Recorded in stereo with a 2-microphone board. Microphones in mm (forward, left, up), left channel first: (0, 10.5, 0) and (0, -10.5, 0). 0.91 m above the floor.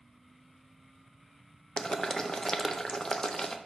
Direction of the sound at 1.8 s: 25° left (ahead or behind).